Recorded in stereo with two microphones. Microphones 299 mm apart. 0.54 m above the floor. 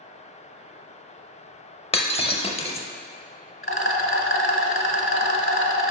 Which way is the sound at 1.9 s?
20° left (ahead or behind).